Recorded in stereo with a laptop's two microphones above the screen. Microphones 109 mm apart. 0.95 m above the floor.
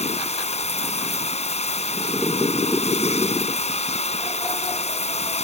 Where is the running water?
85° left.